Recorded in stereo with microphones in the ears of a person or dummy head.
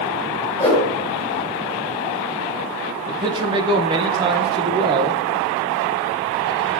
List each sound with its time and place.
0.6 s a whoosh: 15° left (ahead or behind), 4 m
3.1 s a man speaking: 25° right (ahead or behind), 1.2 m